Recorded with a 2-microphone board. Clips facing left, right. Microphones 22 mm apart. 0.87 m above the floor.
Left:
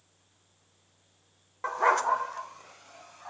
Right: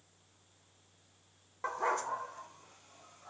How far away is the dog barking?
About 0.5 m.